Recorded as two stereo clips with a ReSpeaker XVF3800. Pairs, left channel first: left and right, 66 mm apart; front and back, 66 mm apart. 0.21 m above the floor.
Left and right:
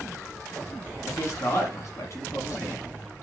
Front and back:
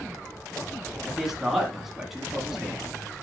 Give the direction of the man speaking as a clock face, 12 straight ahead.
9 o'clock.